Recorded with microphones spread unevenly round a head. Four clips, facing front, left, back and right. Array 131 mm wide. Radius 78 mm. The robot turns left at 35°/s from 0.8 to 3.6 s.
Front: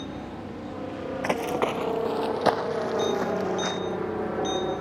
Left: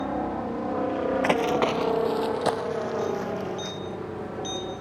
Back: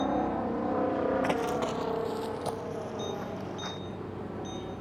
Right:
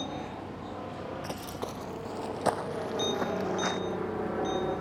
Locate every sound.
0.0 s a helicopter: 120° left; by 4.8 s 15° right
1.2 s running footsteps: 75° left; by 3.8 s 35° right